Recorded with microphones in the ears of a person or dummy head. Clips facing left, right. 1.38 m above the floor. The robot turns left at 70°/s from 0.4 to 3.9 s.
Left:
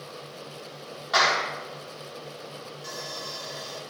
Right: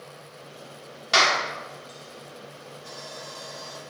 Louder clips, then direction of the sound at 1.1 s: Right 1 dB; 40° right (ahead or behind).